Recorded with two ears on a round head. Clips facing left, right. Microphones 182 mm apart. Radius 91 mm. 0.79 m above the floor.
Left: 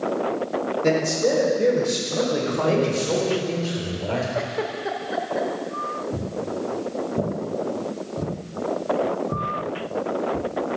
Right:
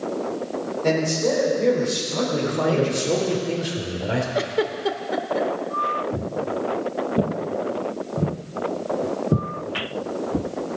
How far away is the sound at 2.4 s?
About 3 m.